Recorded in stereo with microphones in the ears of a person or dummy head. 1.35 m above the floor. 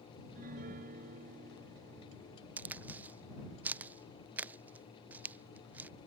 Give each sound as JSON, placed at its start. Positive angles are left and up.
{"t": 0.2, "sound": "a piano", "side_deg": -45}
{"t": 2.6, "sound": "a crack", "side_deg": -10}